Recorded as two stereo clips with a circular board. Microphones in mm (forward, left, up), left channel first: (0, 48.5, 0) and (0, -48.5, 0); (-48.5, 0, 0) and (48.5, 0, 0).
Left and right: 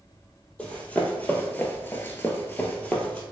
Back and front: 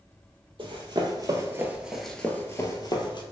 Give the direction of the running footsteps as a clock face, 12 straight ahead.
11 o'clock.